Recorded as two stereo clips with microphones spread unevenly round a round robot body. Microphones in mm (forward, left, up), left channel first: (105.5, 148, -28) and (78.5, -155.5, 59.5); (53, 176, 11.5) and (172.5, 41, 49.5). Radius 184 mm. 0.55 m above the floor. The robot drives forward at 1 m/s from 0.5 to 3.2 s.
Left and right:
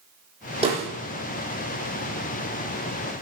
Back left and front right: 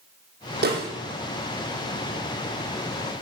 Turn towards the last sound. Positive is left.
turn(degrees=-30)